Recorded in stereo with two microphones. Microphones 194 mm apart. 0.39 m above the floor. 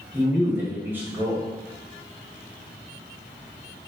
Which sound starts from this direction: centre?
A man speaking, at 0.1 s.